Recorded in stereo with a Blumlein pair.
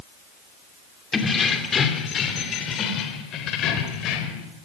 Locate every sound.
1.1 s keys jangling: 15° left, 2 m; by 4.5 s 35° left, 4 m